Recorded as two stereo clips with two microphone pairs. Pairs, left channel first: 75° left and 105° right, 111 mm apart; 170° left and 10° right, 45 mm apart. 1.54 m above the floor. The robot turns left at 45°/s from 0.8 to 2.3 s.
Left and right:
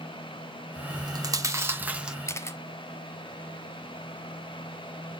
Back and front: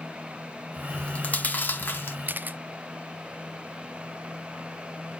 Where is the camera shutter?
15° left, 0.5 m.